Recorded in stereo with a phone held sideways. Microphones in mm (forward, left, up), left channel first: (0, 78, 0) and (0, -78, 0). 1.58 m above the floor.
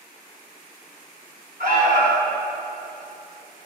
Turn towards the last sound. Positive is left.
turn(degrees=-70)  # may be behind; listen again after turning